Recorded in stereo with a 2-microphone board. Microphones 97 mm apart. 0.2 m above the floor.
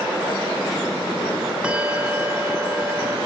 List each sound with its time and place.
1.6 s a bell: 10° right (ahead or behind), 1.3 m